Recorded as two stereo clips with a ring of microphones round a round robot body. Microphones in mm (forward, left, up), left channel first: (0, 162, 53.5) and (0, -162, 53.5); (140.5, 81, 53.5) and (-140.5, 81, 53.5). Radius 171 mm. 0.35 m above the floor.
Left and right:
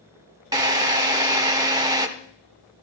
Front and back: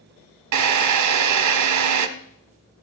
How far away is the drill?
About 1.1 m.